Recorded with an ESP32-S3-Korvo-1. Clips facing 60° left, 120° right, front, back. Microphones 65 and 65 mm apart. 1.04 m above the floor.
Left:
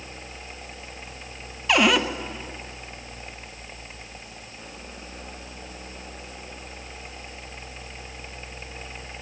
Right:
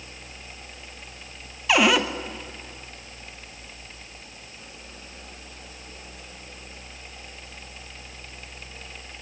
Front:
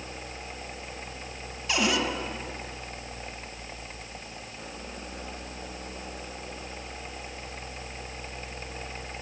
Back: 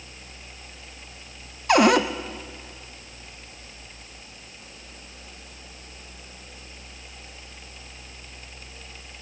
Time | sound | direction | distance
1.7 | a cupboard door | 155° left | 1.0 m